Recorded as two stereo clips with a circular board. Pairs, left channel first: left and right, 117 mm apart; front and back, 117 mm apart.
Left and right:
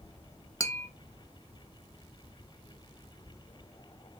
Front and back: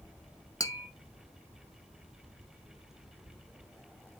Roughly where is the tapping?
Ahead left.